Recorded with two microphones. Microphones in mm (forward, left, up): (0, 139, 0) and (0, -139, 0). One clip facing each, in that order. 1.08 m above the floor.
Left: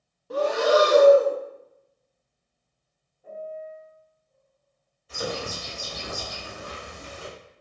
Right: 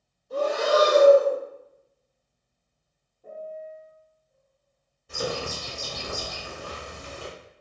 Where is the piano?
50° right (ahead or behind), 0.9 m.